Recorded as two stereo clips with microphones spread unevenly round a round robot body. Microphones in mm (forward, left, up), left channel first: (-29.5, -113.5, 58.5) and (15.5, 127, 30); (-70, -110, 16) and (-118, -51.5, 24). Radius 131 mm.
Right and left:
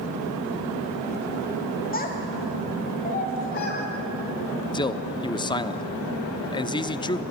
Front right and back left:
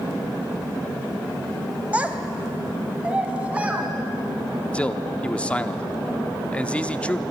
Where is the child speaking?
160° right, 1.8 m; by 3.9 s 155° right, 3 m.